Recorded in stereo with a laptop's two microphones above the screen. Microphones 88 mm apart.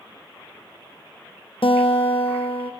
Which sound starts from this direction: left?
A guitar, at 1.6 s.